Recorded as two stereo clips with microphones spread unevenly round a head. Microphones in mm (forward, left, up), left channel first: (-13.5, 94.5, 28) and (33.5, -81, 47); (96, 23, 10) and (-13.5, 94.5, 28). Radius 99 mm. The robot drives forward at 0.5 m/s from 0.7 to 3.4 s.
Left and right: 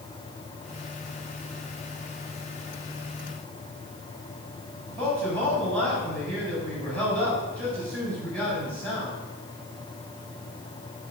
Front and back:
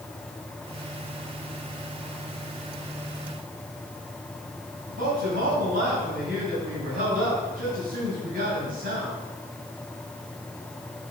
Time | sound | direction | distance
4.9 | a man speaking | 175° right | 7 m